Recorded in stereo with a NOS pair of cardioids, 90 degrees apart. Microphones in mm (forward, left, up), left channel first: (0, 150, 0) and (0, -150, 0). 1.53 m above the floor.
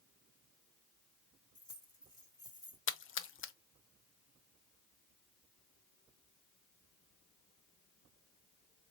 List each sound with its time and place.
1.6 s keys jangling: 10° left, 1.6 m
2.9 s a splash: 45° left, 0.6 m